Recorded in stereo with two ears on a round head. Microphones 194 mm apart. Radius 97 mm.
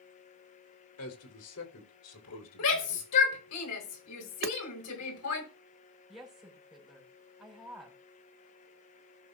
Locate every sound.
1.0 s a man speaking: 75° left (ahead or behind), 3.5 m; by 3.1 s 80° left, 5 m
2.6 s a shout: 85° left, 5 m
4.4 s hammering: 45° right (ahead or behind), 1.0 m
6.1 s a woman speaking: 5° right (ahead or behind), 5.5 m